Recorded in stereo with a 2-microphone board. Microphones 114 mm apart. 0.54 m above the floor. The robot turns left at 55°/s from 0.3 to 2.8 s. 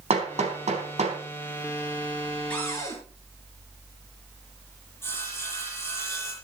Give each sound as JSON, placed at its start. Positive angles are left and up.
{"t": 0.1, "sound": "hammering", "side_deg": -65, "distance_m": 3.5}
{"t": 2.5, "sound": "a cupboard door", "side_deg": 10, "distance_m": 7.0}
{"t": 5.0, "sound": "sawing", "side_deg": 20, "distance_m": 9.0}